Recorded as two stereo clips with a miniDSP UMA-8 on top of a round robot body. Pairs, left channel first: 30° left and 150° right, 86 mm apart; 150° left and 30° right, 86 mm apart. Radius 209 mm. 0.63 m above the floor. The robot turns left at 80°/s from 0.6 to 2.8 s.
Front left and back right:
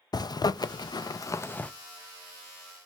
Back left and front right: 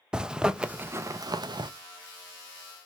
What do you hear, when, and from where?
0.1 s a zipper: 50° left, 0.5 m; by 1.7 s 40° right, 0.5 m